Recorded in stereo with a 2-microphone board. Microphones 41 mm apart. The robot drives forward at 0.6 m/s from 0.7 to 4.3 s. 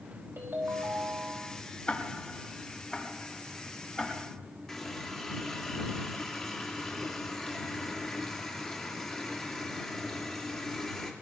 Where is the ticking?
25° left (ahead or behind), 1.3 m; by 4.3 s 15° left (ahead or behind), 2.5 m.